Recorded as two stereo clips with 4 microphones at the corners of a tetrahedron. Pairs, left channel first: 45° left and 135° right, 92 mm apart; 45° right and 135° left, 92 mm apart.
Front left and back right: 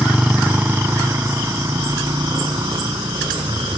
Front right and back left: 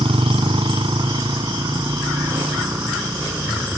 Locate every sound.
0.0 s a motorcycle: 145° left; by 3.8 s 160° right